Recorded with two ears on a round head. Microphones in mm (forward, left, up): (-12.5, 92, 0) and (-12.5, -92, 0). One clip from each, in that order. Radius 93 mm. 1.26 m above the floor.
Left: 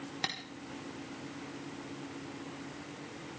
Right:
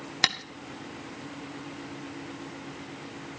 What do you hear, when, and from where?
0.2 s tapping: 45° right (ahead or behind), 1.7 m